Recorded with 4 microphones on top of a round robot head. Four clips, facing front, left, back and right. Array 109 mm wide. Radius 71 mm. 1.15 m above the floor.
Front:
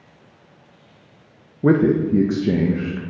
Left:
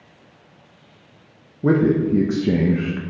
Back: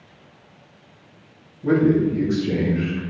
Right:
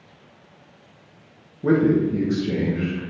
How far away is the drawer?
I don't hear a drawer.